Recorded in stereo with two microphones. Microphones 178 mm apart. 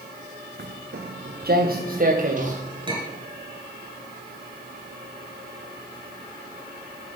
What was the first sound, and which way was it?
Footsteps, 80° right.